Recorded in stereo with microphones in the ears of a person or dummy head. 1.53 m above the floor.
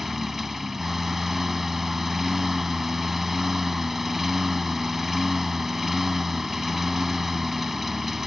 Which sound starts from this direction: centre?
A lawn mower, at 0.0 s.